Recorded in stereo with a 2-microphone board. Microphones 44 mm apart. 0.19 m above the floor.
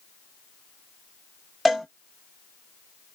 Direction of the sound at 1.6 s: 5° right (ahead or behind).